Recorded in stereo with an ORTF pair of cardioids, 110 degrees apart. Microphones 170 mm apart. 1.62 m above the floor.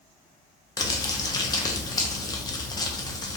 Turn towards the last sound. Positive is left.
turn(degrees=25)